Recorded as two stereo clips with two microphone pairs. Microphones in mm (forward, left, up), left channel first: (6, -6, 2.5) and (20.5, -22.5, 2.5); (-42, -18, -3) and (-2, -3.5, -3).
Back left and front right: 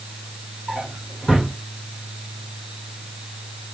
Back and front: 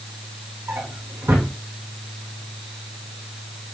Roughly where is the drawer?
Ahead.